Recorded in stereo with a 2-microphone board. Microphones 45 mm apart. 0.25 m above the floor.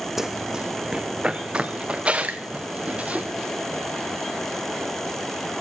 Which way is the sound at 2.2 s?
35° right (ahead or behind).